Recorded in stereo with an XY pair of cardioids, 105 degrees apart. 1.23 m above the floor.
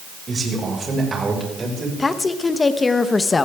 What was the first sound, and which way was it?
A man speaking, 35° right.